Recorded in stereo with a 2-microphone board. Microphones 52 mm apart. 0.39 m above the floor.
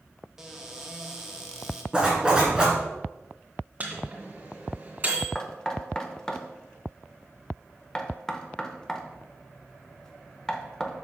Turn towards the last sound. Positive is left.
turn(degrees=10)  # may be behind; listen again after turning